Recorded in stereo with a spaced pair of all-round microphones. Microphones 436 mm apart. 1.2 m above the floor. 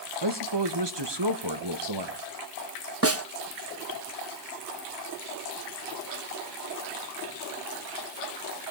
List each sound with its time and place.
0.2 s a man speaking: 70° right (ahead or behind), 1.7 m
3.0 s a snare drum: 35° right (ahead or behind), 0.8 m